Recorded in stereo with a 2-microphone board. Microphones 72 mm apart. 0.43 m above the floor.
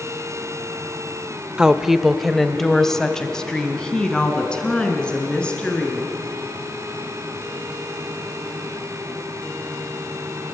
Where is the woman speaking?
10° right (ahead or behind), 1.1 m; by 6.1 s 15° left (ahead or behind), 6 m.